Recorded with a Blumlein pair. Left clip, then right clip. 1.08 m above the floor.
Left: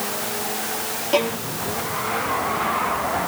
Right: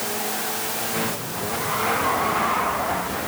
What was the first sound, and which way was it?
A violin, 40° left.